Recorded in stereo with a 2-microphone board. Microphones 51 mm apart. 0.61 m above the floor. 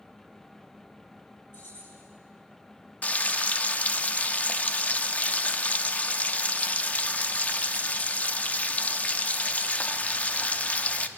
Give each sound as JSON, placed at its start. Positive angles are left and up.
{"t": 1.5, "sound": "keys jangling", "side_deg": 60, "distance_m": 10.0}
{"t": 3.0, "sound": "frying", "side_deg": 30, "distance_m": 0.9}